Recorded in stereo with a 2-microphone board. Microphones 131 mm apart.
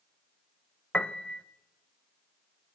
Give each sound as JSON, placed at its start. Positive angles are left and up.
{"t": 0.9, "sound": "a piano", "side_deg": 10, "distance_m": 0.5}